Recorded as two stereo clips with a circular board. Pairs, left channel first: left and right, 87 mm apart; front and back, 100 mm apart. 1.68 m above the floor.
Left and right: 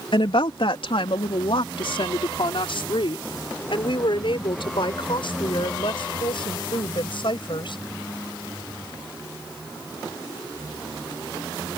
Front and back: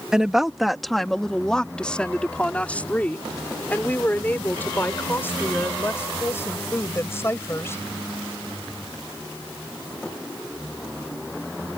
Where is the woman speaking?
100° left; by 7.8 s 65° left.